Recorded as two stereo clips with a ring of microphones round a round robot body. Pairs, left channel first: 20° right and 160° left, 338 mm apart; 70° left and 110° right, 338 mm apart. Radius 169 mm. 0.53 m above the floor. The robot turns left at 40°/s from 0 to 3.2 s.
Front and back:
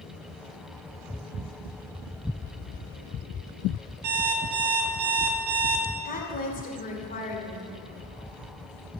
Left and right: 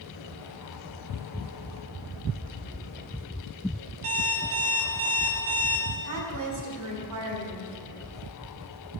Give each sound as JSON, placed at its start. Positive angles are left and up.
{"t": 4.0, "sound": "an alarm clock", "azimuth_deg": -160, "distance_m": 1.6}
{"t": 6.0, "sound": "a woman speaking", "azimuth_deg": -85, "distance_m": 2.0}